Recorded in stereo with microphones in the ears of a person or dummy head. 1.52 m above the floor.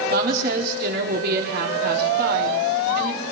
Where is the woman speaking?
60° right (ahead or behind), 3.5 m.